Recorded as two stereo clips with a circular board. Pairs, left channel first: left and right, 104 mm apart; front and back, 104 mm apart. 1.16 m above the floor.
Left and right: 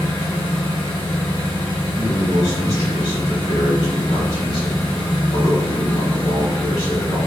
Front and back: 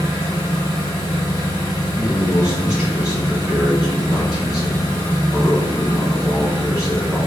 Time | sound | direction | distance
0.0 | an engine running | 50° left | 1.5 m
1.9 | a man speaking | 100° left | 1.7 m